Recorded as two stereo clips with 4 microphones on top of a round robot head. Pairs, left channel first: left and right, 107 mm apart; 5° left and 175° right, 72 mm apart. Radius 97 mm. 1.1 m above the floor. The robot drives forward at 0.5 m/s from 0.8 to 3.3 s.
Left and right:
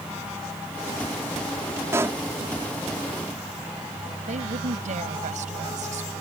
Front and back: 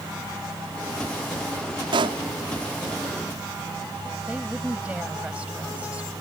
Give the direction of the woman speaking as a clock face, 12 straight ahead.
3 o'clock.